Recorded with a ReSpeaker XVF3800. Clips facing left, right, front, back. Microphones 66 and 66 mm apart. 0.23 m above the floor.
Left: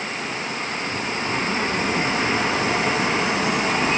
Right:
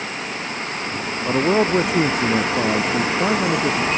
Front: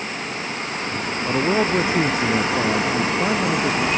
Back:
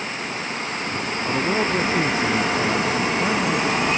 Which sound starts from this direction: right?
A man speaking, at 1.2 s.